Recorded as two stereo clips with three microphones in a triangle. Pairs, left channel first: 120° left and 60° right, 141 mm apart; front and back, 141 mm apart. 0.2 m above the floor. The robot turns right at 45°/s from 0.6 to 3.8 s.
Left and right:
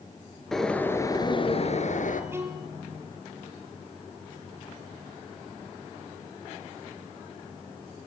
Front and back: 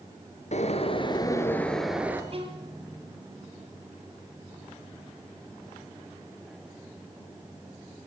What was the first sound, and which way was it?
A bird, 35° left.